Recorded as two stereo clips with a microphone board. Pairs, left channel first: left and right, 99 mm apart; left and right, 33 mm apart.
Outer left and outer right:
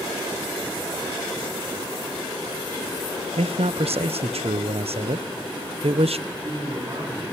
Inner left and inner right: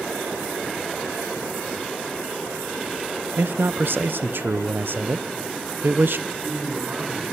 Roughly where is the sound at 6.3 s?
Right.